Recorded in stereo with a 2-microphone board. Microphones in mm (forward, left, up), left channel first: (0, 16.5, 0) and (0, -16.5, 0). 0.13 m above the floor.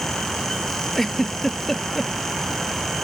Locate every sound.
1.0 s a giggle: 10° left (ahead or behind)